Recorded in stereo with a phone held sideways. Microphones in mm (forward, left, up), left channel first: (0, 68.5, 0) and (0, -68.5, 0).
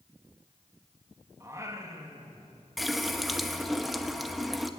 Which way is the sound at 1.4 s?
25° right (ahead or behind).